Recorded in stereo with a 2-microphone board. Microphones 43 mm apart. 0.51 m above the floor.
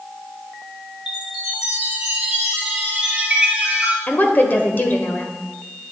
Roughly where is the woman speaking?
Left.